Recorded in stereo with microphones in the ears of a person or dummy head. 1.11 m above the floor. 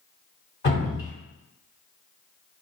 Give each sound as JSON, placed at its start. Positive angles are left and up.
{"t": 0.6, "sound": "dripping", "side_deg": 30, "distance_m": 1.5}